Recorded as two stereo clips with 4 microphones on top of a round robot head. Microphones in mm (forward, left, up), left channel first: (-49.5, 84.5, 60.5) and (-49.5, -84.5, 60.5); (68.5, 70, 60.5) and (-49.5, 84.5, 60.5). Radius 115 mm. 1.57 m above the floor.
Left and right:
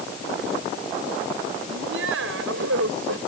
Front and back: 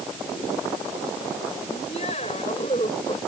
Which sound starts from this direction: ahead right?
Laughter, at 1.7 s.